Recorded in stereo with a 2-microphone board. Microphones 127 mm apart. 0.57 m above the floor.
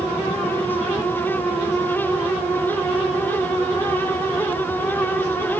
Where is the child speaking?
No child speaking in this recording.